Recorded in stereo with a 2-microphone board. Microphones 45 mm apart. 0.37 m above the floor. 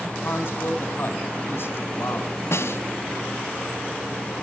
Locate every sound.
0.2 s a man speaking: 60° left (ahead or behind), 3 m
2.5 s a snare drum: 75° left (ahead or behind), 1.2 m